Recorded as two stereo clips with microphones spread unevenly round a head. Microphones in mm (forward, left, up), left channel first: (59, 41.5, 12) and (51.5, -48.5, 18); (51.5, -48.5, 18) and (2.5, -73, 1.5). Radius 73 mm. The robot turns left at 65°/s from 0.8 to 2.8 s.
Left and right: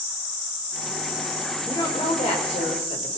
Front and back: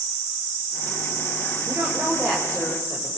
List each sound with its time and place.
1.7 s a woman speaking: 160° left, 5.5 m; by 3.2 s 85° left, 5.5 m